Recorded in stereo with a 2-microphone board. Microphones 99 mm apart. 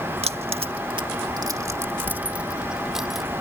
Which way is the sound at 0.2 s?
80° right.